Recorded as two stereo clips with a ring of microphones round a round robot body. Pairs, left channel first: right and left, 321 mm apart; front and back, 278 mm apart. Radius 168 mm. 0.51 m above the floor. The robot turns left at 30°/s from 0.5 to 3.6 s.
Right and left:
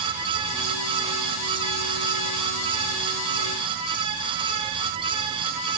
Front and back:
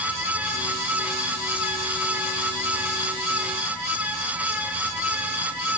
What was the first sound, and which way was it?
Only background noise.